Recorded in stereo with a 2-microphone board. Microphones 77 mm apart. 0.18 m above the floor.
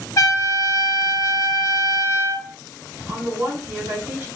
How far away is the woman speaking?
About 1.0 m.